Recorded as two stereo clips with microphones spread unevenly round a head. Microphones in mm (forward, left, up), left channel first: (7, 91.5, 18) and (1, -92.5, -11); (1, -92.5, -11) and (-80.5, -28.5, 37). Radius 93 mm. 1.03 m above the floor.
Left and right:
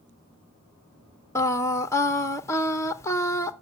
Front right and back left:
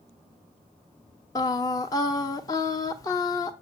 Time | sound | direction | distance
1.4 | singing | 10° left | 0.8 m